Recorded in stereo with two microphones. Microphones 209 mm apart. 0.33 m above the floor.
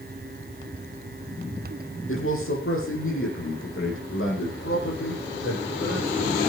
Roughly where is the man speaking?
Left.